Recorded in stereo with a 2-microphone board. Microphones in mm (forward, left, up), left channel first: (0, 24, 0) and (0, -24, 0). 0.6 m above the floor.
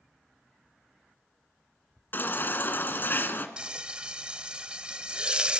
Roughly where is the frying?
Right.